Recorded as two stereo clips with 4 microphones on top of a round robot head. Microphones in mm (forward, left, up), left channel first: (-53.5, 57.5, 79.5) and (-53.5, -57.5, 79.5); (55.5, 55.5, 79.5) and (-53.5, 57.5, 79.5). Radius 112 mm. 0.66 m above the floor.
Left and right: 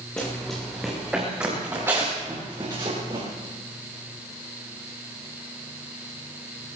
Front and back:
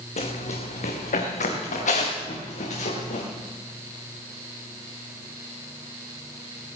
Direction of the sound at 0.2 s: 10° left.